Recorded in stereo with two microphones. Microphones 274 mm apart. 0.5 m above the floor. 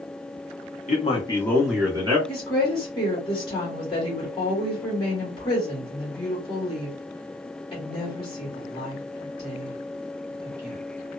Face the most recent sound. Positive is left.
turn(degrees=20)  # may be behind; listen again after turning